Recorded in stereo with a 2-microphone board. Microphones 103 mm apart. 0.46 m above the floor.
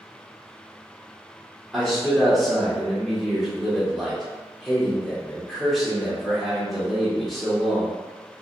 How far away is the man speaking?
About 1.2 m.